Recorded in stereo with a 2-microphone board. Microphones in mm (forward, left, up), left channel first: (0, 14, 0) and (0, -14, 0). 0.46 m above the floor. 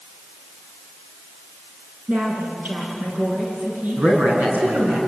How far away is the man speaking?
About 6 m.